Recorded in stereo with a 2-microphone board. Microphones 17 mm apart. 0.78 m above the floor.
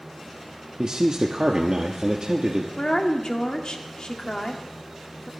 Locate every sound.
0.8 s a man speaking: 60° right (ahead or behind), 1.2 m
2.8 s a woman speaking: 55° left (ahead or behind), 1.9 m